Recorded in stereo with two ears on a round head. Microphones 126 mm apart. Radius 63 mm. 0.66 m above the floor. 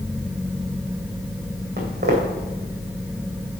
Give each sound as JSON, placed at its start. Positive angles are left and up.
{"t": 1.8, "sound": "footsteps", "side_deg": -50, "distance_m": 1.9}